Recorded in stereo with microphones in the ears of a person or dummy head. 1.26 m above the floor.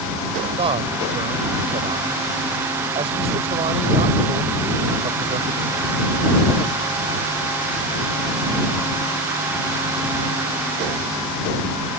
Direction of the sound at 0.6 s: 30° right (ahead or behind).